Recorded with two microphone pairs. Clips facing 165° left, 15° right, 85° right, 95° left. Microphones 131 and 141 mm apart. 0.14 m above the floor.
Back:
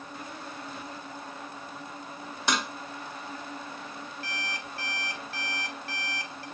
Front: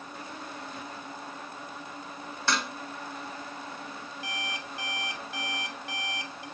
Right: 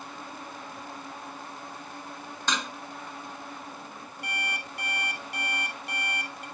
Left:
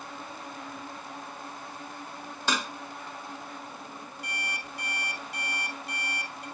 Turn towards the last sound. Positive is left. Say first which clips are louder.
# front 3 dB, right 5 dB
turn(degrees=-85)